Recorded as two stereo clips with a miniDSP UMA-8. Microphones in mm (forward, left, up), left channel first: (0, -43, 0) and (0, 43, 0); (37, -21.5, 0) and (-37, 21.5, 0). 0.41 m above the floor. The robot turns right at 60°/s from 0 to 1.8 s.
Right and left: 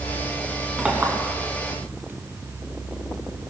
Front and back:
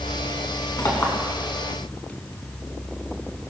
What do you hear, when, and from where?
0.8 s a clink: 10° left, 2.5 m; by 1.2 s 35° left, 2.5 m